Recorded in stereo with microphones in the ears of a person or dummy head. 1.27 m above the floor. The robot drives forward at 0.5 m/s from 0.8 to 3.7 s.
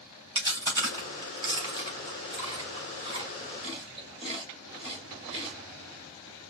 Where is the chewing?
20° right (ahead or behind), 4 m; by 5.5 s 30° right (ahead or behind), 2.5 m.